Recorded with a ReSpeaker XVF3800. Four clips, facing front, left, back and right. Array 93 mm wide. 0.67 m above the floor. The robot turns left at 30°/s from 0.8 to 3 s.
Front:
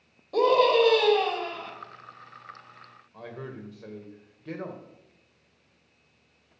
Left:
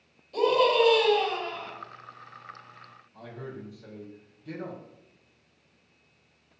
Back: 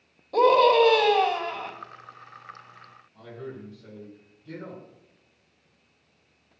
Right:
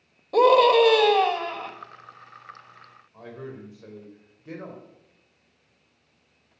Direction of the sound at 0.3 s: 90° right.